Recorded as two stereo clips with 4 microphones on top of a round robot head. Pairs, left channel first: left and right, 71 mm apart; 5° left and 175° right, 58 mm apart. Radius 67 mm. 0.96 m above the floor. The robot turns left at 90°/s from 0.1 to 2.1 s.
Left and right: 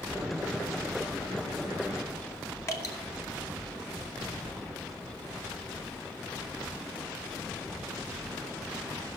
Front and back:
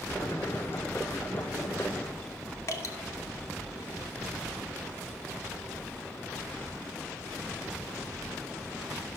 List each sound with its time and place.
2.7 s dripping: 45° left, 2.5 m